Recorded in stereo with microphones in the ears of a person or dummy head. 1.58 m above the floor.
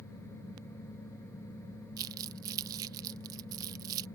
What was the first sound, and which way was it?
Crumpling, 20° right (ahead or behind).